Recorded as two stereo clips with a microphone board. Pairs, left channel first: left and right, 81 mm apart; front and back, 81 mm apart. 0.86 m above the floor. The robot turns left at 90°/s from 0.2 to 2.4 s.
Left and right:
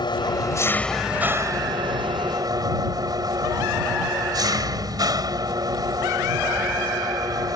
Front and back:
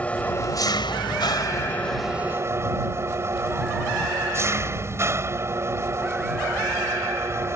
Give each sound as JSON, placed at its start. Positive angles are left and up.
{"t": 0.0, "sound": "an engine running", "azimuth_deg": 70}